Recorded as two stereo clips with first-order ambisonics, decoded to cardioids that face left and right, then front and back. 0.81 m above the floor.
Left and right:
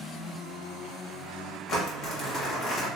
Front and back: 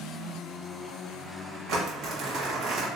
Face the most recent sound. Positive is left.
turn(degrees=140)